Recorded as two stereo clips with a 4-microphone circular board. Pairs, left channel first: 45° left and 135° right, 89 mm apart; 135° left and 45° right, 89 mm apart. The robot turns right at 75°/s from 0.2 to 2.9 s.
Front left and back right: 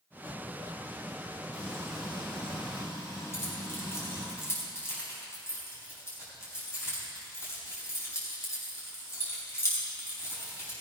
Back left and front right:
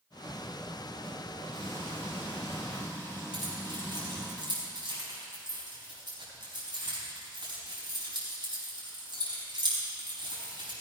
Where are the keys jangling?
15° right, 4.5 m.